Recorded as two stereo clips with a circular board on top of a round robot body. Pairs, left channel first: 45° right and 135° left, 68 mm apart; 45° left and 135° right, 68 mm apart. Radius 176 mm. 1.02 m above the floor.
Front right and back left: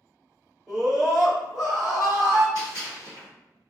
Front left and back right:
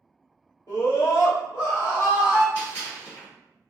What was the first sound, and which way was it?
A scream, 70° left.